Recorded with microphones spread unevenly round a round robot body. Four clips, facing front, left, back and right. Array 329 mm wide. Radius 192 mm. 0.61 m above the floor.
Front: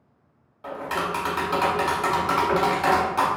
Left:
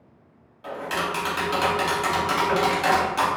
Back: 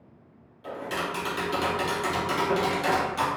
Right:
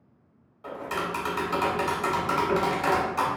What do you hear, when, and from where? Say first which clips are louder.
0.6 s tapping: left 3 dB, front 4 dB; 15° left, 1.0 m